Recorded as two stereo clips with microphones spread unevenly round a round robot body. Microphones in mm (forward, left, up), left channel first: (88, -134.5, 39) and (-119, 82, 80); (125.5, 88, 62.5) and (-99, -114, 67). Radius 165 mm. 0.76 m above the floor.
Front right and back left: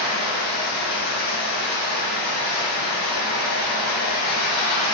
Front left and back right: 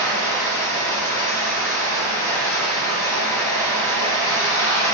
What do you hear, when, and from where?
0.0 s running water: 40° right, 1.3 m